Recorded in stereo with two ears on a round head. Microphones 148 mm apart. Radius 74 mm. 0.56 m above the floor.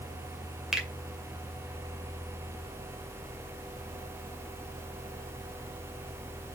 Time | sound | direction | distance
0.7 | a finger snap | 5° right (ahead or behind) | 2 m